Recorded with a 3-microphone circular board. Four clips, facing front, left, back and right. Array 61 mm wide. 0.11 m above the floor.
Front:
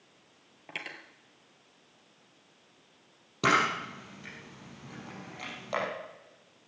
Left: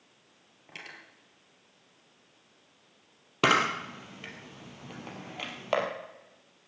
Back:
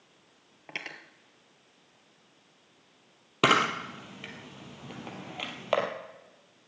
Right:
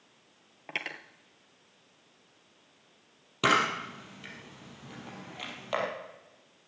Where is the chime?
No chime in this recording.